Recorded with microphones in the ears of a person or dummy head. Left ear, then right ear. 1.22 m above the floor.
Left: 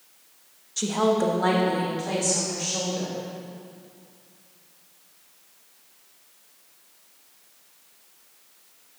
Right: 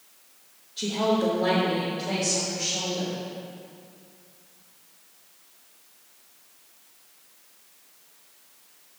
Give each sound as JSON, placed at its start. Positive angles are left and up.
{"t": 0.8, "sound": "a woman speaking", "side_deg": 65, "distance_m": 1.2}